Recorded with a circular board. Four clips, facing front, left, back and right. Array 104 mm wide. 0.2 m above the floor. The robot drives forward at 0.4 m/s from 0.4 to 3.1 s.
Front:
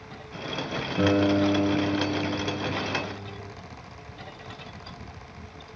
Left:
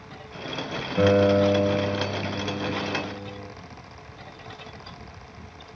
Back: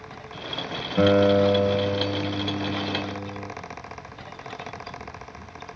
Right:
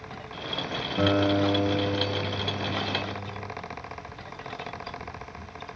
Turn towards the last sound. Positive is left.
turn(degrees=165)